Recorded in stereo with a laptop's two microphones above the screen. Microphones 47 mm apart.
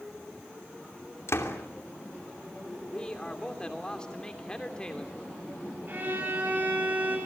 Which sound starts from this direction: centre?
A man speaking, at 2.9 s.